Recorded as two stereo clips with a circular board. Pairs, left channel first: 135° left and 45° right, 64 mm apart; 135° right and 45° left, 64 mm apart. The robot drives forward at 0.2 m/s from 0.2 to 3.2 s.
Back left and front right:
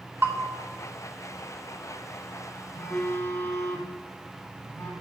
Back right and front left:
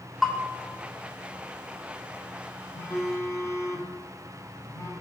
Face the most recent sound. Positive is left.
turn(degrees=-175)